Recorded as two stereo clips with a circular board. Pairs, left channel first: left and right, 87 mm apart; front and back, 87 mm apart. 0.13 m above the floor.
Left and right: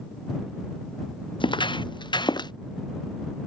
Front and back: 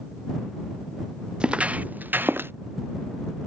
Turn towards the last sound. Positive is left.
turn(degrees=115)